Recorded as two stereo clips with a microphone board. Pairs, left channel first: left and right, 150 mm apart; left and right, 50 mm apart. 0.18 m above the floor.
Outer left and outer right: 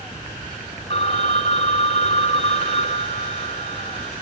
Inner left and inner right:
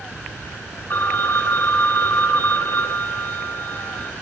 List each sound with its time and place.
0.9 s a phone ringing: 50° left (ahead or behind), 1.0 m